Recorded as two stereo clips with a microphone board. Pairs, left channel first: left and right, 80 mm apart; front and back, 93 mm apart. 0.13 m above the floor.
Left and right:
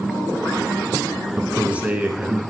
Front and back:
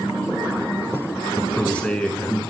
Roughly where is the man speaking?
Ahead right.